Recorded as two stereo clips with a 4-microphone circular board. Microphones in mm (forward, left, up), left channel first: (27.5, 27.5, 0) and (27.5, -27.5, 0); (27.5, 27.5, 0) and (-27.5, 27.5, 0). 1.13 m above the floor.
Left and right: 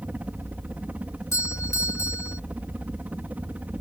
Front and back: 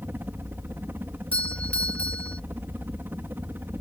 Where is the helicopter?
140° right.